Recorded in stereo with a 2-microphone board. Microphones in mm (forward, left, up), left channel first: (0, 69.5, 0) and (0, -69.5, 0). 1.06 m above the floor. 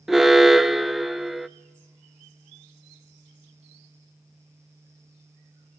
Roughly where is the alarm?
Centre.